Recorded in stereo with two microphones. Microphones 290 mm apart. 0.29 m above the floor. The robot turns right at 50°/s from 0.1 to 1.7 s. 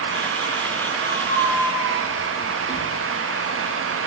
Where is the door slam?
I don't hear a door slam.